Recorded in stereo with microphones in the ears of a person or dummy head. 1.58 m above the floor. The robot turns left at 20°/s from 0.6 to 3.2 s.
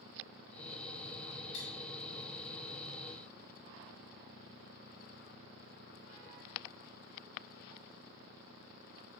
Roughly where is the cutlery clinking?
Left.